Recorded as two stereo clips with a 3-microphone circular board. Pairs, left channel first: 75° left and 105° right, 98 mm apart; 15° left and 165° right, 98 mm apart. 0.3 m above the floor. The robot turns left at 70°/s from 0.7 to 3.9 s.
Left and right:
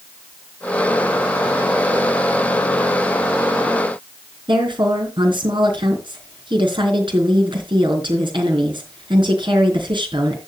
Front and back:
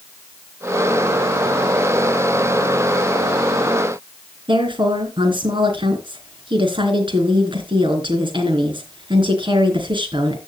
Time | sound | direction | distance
4.5 | a woman speaking | 135° right | 3.5 m